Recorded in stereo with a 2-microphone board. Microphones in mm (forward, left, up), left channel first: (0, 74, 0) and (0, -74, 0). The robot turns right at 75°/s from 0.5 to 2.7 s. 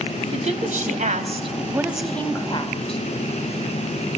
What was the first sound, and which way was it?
A woman speaking, 115° right.